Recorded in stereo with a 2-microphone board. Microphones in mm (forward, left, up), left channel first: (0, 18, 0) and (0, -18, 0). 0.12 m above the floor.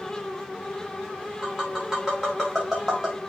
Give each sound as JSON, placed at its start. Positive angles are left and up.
{"t": 1.4, "sound": "tapping", "side_deg": -10, "distance_m": 4.5}